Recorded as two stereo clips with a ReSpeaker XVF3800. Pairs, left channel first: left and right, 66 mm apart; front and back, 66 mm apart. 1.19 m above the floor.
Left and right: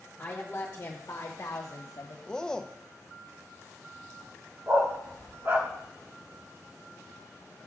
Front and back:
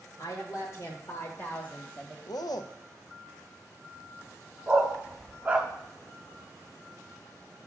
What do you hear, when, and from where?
0.2 s a woman speaking: 15° left, 1.4 m; by 2.2 s 75° left, 1.1 m
2.3 s a man speaking: 10° left, 0.6 m
4.7 s a dog barking: 120° right, 0.8 m